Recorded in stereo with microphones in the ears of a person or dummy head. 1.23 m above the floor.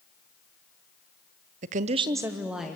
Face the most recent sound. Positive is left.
turn(degrees=0)  # may be behind; listen again after turning